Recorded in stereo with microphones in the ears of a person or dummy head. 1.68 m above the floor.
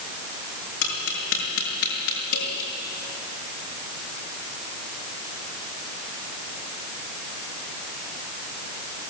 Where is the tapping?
65° left (ahead or behind), 6 m.